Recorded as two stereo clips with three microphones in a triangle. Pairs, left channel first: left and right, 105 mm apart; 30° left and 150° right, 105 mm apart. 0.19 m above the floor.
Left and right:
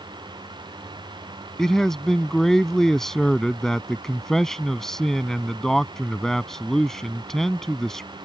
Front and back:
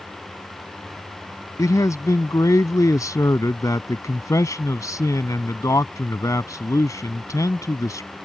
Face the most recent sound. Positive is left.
turn(degrees=10)